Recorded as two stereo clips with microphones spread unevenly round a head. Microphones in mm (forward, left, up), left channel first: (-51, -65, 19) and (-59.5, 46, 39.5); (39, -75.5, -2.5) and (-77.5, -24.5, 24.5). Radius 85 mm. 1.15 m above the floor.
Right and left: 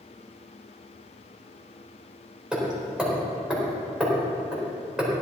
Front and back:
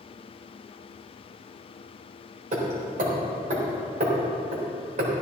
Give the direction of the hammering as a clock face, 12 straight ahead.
6 o'clock.